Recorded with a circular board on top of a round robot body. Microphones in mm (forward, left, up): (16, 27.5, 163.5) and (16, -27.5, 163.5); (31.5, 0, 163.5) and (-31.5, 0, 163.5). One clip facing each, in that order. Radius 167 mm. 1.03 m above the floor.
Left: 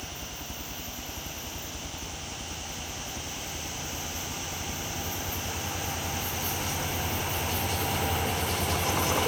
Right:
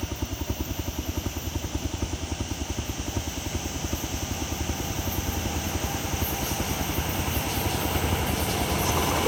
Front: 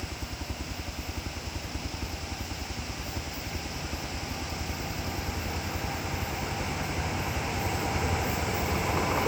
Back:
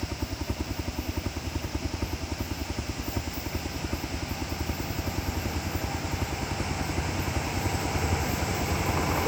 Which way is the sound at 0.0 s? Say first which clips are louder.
Right 7 dB, back 4 dB; 125° right.